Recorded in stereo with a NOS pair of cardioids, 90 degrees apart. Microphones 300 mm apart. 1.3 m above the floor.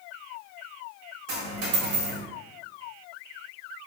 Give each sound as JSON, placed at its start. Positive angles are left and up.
{"t": 1.3, "sound": "a dropped coin", "azimuth_deg": -50, "distance_m": 1.9}